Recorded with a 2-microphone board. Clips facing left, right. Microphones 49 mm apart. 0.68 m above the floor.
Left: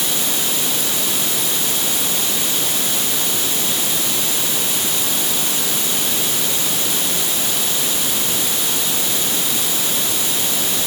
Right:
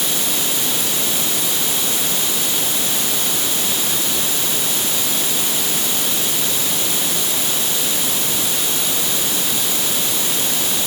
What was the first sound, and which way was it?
Only background noise.